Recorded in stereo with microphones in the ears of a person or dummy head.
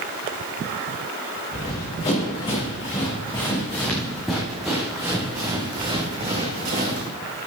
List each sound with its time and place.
1.5 s running footsteps: 25° left (ahead or behind), 4 m; by 7.1 s 45° right (ahead or behind), 2.5 m